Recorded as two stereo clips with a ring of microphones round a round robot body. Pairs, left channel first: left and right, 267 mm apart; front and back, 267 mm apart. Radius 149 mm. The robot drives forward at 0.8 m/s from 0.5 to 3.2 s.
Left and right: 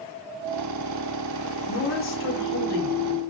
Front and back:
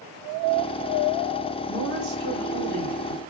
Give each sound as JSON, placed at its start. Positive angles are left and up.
{"t": 1.7, "sound": "a woman speaking", "azimuth_deg": 125, "distance_m": 1.4}